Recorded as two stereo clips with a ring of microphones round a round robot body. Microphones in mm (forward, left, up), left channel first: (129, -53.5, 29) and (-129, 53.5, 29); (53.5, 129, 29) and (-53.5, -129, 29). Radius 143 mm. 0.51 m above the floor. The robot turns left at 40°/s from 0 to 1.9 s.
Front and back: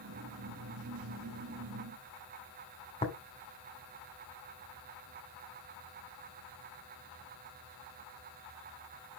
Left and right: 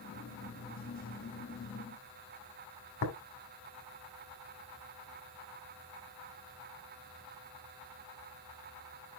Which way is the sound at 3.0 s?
45° left.